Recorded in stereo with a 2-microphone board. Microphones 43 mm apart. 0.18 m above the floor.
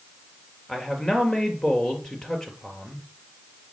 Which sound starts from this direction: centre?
A man speaking, at 0.7 s.